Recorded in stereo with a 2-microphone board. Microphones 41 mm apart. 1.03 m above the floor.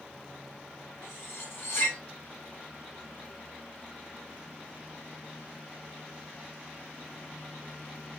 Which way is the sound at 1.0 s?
70° left (ahead or behind).